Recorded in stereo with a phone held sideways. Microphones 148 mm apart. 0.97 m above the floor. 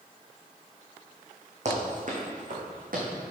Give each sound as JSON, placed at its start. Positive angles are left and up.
{"t": 1.6, "sound": "running footsteps", "side_deg": -55, "distance_m": 3.0}